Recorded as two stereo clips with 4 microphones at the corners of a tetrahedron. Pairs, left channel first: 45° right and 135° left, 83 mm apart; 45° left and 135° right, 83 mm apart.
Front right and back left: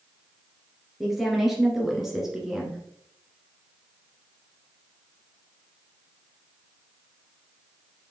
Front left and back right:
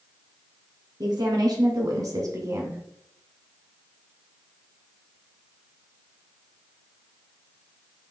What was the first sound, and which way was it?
A woman speaking, 135° right.